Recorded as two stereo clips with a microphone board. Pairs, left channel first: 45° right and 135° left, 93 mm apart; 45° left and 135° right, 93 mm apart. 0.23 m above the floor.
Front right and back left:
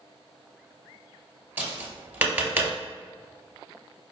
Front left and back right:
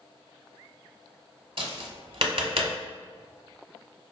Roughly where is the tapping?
Behind right.